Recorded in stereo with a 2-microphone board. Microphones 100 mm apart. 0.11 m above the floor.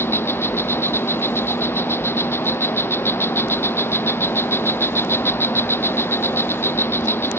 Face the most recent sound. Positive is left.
turn(degrees=25)  # may be behind; listen again after turning